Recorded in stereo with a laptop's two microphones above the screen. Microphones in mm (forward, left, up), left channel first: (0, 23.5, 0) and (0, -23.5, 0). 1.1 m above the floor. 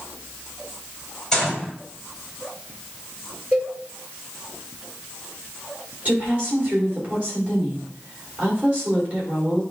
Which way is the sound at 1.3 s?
10° left (ahead or behind).